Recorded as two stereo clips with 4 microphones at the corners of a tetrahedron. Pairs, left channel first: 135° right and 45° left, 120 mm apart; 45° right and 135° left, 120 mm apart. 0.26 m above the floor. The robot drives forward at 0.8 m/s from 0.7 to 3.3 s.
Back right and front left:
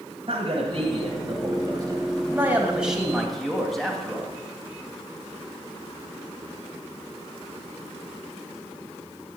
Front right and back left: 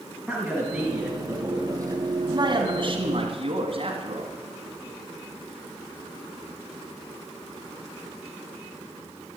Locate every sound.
0.3 s a man speaking: 50° left, 1.9 m; by 4.3 s 135° left, 2.0 m